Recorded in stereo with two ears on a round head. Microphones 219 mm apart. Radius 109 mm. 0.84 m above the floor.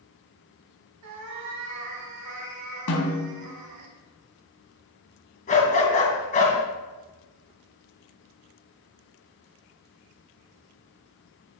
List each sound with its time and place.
1.0 s a cat meowing: 80° right, 1.9 m
2.9 s a snare drum: 70° left (ahead or behind), 3 m
5.5 s a dog barking: 35° left (ahead or behind), 2.5 m